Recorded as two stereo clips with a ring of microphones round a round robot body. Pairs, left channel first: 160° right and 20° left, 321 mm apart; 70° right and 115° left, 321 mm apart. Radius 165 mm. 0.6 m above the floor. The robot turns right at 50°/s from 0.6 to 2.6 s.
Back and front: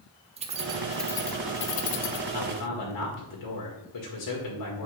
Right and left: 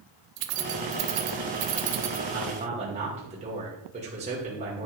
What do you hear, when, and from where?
0.4 s keys jangling: 95° left, 0.9 m; by 2.2 s 175° left, 0.9 m
2.3 s a man speaking: 170° left, 2 m; by 4.9 s straight behind, 2 m